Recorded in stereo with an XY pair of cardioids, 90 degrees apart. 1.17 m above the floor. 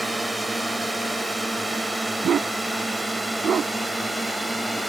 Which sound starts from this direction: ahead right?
A dog barking, at 2.2 s.